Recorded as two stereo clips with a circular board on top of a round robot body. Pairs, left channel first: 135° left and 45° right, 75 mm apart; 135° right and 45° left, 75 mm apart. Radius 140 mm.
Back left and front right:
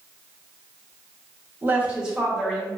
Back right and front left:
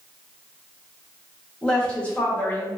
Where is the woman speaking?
75° right, 1.3 m; by 2.7 s 150° right, 1.3 m.